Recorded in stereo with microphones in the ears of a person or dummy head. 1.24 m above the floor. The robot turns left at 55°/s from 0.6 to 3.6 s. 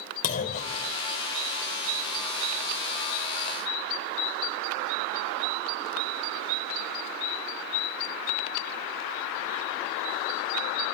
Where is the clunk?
45° left (ahead or behind), 3 m; by 0.9 s 30° left (ahead or behind), 3 m.